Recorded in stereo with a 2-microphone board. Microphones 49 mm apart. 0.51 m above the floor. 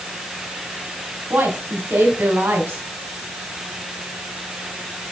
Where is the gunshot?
I don't hear a gunshot.